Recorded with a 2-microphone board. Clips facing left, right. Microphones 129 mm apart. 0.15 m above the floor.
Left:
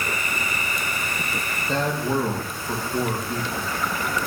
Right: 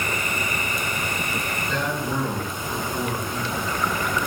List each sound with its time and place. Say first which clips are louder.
1.7 s a man speaking: left 4 dB; 40° left (ahead or behind), 5 m